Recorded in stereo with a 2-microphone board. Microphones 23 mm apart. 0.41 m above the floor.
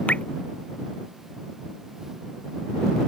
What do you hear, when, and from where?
0.1 s dripping: 80° left